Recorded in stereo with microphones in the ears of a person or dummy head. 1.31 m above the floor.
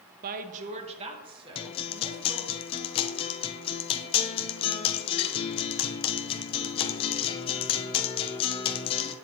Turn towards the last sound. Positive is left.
turn(degrees=35)  # may be behind; listen again after turning